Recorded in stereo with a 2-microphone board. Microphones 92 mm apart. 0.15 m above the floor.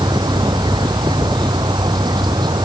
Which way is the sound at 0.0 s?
55° right (ahead or behind).